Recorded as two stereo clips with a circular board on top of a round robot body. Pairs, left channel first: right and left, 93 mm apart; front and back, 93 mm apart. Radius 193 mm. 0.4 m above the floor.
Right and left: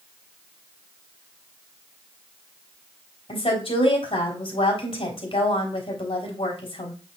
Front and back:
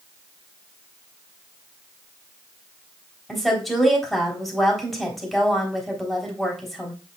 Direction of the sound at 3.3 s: 85° right.